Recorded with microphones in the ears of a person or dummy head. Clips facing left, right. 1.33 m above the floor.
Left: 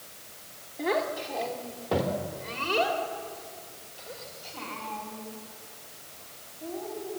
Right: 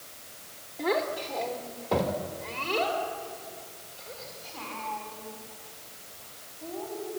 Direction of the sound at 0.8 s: 5° left (ahead or behind).